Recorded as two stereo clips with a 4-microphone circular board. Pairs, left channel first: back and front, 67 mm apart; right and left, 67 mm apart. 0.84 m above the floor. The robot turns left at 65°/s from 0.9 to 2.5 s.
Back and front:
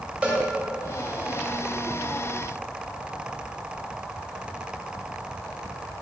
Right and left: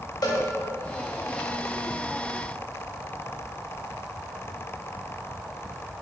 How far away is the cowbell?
About 1.0 m.